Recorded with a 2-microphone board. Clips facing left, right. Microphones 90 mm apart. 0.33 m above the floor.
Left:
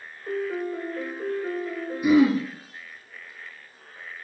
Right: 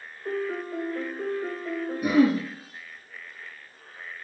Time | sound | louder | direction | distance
0.2 | a piano | left 2 dB | 75° right (ahead or behind) | 3 m
2.0 | throat clearing | left 2 dB | 75° right (ahead or behind) | 2.5 m